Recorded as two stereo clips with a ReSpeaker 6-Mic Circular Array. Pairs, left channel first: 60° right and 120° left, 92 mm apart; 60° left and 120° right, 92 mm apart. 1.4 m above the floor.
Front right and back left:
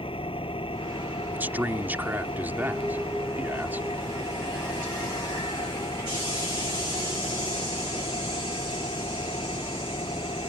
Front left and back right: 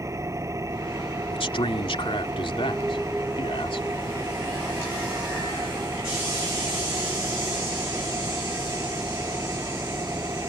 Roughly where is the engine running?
Ahead right.